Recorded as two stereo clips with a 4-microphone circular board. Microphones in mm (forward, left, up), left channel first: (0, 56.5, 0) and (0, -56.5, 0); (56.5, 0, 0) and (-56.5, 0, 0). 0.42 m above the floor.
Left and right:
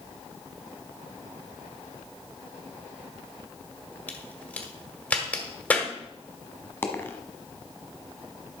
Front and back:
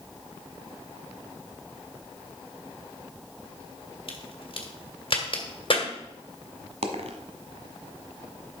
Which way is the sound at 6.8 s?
160° left.